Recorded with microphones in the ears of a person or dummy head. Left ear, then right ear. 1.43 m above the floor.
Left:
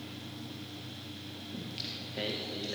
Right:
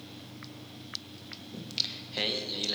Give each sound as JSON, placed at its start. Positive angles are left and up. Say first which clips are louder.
{"t": 1.5, "sound": "singing", "louder": "right 7 dB", "side_deg": -45, "distance_m": 1.4}